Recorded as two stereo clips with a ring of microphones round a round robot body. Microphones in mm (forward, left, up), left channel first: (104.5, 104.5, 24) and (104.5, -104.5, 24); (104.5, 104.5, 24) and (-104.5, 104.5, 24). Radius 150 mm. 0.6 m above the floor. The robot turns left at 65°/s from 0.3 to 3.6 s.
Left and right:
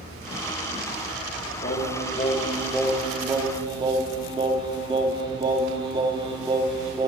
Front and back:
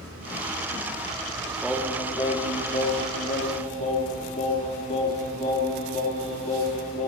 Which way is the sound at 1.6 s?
95° left.